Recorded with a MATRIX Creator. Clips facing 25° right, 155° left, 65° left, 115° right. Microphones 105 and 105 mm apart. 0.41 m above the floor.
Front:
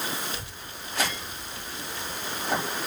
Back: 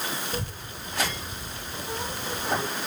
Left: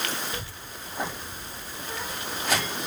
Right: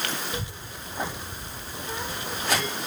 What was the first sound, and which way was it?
A child speaking, straight behind.